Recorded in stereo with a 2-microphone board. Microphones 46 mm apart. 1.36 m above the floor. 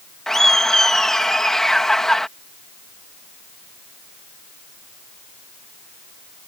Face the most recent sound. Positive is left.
turn(degrees=10)  # may be behind; listen again after turning